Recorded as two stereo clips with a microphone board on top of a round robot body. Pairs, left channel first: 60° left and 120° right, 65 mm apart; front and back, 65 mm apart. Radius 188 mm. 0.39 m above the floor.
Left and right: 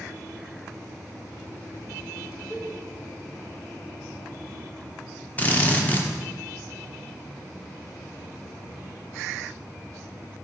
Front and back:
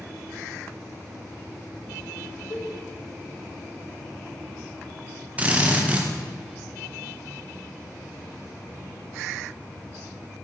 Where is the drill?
120° left, 1.5 m.